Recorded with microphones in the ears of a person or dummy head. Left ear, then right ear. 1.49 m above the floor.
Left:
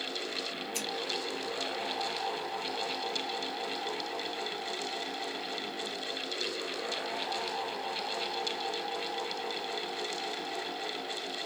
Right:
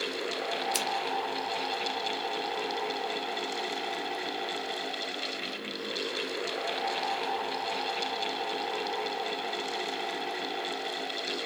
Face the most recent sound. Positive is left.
turn(degrees=-50)  # may be behind; listen again after turning